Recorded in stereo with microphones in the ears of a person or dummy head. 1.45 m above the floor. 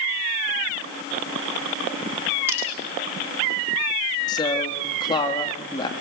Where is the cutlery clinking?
10° right (ahead or behind), 6 m.